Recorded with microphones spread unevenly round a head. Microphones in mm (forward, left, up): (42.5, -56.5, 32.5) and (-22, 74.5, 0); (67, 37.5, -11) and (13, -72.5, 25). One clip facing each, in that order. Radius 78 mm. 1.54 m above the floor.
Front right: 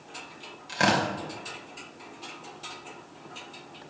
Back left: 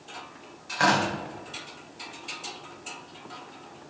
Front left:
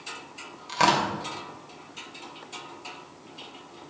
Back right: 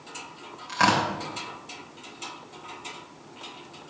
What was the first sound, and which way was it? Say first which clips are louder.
Tearing paper: back left 1 dB, even; 10° right.